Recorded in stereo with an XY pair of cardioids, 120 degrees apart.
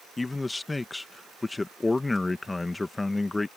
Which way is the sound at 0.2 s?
15° left.